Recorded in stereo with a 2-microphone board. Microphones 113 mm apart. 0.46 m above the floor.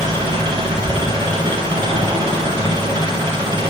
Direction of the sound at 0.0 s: 40° right (ahead or behind).